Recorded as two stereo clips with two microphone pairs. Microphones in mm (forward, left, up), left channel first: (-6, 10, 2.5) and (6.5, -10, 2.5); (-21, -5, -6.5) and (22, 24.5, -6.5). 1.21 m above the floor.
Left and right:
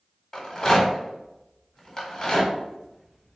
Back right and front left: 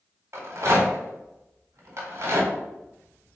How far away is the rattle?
About 1.5 m.